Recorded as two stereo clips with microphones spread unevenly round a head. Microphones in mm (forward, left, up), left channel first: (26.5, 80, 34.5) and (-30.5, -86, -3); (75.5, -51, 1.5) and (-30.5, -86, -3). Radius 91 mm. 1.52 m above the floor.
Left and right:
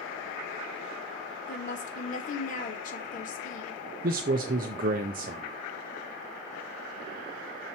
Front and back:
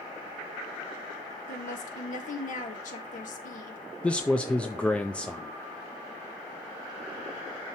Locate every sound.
1.5 s a woman speaking: 20° left, 1.5 m
4.0 s a man speaking: 60° right, 0.5 m